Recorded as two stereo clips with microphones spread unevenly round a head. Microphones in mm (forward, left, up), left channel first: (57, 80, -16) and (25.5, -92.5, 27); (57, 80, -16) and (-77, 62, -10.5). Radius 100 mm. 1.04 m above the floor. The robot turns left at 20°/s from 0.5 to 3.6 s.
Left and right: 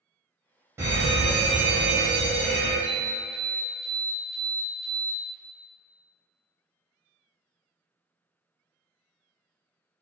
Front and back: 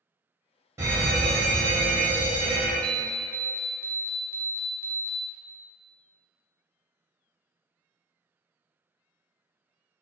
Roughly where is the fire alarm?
Behind.